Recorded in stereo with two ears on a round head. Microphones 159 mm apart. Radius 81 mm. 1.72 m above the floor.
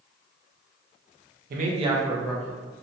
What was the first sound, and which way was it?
A man speaking, 55° right (ahead or behind).